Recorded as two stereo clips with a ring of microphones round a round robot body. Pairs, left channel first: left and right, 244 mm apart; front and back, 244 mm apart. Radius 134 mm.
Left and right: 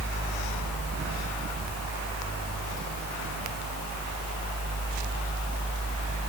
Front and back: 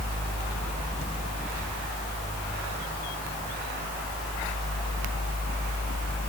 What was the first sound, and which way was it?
Only background noise.